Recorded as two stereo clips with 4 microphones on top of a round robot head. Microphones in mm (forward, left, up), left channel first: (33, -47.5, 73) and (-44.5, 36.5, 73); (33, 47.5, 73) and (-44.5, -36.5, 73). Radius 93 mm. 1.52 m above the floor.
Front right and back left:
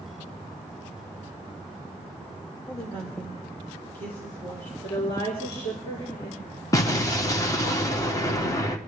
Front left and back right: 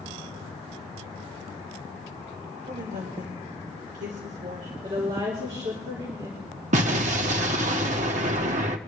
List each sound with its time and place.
2.7 s a woman speaking: 115° right, 2.5 m
4.8 s a woman speaking: 90° right, 4 m
6.7 s an explosion: 110° right, 1.1 m